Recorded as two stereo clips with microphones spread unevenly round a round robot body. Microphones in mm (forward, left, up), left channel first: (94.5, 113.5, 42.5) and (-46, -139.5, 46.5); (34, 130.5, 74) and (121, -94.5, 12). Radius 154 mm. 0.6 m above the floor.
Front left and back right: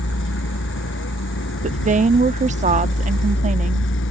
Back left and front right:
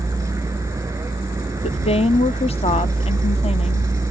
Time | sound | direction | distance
0.0 | a vehicle | 10° left | ?
1.6 | a woman speaking | 175° right | ?